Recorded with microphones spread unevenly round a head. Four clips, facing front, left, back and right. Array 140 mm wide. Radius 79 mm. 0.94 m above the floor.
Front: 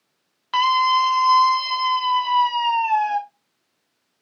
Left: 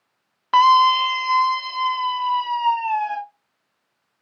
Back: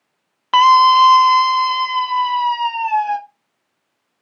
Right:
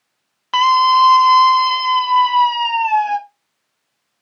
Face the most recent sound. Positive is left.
turn(degrees=-100)